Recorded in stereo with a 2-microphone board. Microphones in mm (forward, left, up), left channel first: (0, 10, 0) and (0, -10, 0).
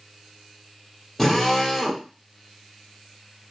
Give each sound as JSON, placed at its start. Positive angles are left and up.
{"t": 1.2, "sound": "a drill", "side_deg": 10, "distance_m": 1.9}